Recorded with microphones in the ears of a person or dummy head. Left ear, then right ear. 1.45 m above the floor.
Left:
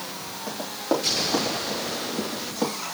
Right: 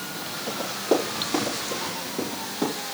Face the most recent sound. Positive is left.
turn(degrees=60)  # may be behind; listen again after turning